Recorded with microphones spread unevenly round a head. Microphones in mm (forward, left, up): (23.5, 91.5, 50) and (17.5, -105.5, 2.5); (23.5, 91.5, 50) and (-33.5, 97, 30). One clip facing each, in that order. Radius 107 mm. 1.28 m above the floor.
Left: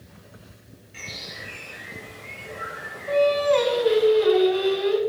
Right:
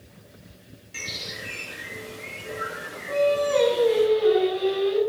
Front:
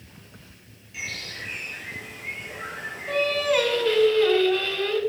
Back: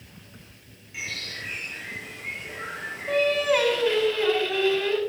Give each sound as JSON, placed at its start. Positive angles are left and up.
{"t": 0.9, "sound": "a bird", "azimuth_deg": -120, "distance_m": 3.5}
{"t": 3.1, "sound": "singing", "azimuth_deg": 100, "distance_m": 4.5}